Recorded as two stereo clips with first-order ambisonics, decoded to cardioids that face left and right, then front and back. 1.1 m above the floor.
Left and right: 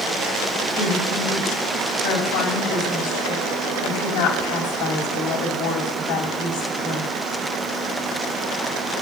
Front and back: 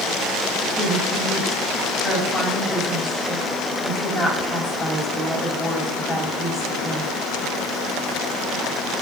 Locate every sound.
0.8 s a woman speaking: 90° left, 6.5 m